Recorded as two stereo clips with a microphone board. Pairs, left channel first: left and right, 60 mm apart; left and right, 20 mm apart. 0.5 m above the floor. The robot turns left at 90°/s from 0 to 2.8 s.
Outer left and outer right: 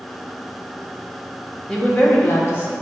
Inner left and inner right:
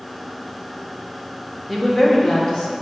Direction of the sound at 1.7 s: 170° left.